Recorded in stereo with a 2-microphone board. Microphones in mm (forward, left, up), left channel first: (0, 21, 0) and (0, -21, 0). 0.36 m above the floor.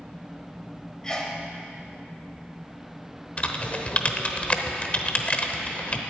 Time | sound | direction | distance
1.0 | a sneeze | 15° left (ahead or behind) | 1.7 m
3.4 | typing on a keyboard | 30° left (ahead or behind) | 0.9 m